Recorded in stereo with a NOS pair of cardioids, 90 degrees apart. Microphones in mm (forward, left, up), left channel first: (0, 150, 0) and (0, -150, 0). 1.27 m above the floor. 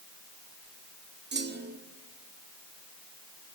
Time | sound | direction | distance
1.3 | a clunk | 35° right | 1.9 m